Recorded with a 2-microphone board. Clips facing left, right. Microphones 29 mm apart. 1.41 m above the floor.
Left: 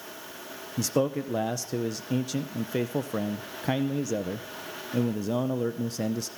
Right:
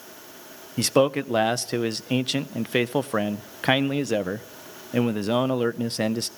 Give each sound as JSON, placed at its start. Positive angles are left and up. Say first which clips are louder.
{"t": 0.8, "sound": "a man speaking", "louder": "right 6 dB", "side_deg": -65, "distance_m": 0.5}